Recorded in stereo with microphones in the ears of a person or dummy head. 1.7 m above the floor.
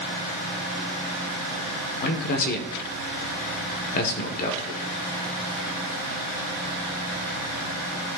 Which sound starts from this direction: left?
A man speaking, at 2.0 s.